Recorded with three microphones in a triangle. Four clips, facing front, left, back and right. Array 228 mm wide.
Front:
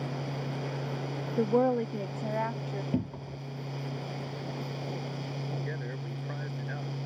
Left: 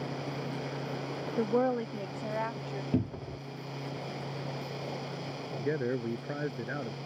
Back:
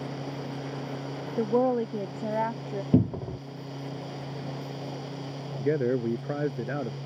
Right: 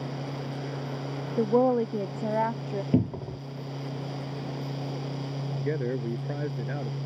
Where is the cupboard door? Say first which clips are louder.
Right 6 dB, back 12 dB; 160° right.